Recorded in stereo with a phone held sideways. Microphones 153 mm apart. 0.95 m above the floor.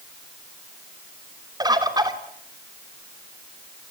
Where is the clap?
No clap in this recording.